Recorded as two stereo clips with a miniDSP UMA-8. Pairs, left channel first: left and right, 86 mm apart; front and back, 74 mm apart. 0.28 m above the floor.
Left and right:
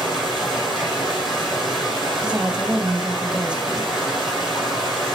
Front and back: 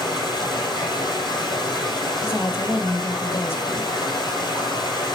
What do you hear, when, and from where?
0.0 s running water: 5° right, 4 m
2.2 s a woman speaking: 20° right, 1.0 m